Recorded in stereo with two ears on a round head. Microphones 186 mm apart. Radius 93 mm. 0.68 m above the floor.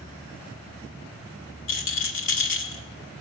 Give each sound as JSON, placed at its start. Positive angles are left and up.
{"t": 1.7, "sound": "a rattle", "side_deg": 65, "distance_m": 2.0}